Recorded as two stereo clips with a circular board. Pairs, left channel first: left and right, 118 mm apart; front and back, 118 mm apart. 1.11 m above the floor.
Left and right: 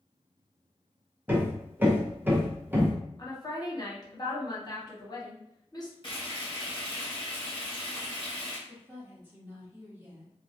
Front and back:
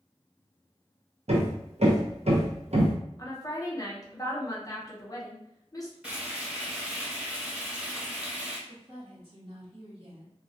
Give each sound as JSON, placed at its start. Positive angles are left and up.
{"t": 1.3, "sound": "hammering", "azimuth_deg": -160, "distance_m": 0.6}
{"t": 3.2, "sound": "a woman speaking", "azimuth_deg": 50, "distance_m": 0.7}
{"t": 6.0, "sound": "frying", "azimuth_deg": 105, "distance_m": 1.2}
{"t": 8.7, "sound": "a woman speaking", "azimuth_deg": -155, "distance_m": 1.1}